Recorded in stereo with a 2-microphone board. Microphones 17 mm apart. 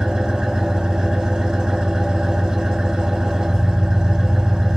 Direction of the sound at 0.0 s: 55° right (ahead or behind).